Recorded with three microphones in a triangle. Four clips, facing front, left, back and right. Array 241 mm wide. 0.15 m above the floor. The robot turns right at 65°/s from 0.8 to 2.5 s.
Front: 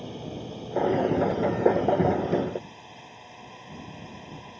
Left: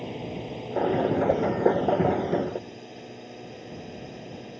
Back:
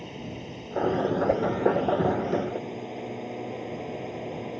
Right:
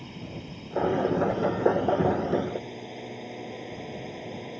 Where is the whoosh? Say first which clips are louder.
Left 3 dB, back 2 dB; 135° left; by 1.5 s 145° left.